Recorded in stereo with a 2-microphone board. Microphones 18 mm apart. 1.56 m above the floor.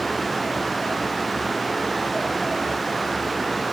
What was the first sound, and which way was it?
Only background noise.